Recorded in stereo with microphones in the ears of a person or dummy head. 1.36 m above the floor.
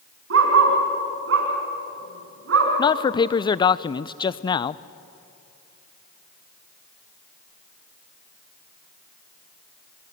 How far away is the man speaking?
About 0.6 m.